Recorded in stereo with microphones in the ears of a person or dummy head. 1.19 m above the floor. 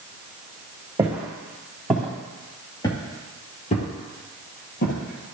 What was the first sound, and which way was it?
Footsteps, 10° right (ahead or behind).